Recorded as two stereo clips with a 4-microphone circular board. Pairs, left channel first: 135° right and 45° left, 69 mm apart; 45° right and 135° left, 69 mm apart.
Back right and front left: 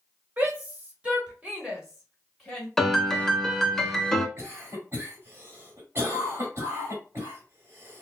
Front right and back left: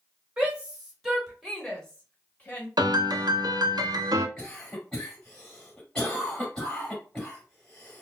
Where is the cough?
30° left, 1.9 m.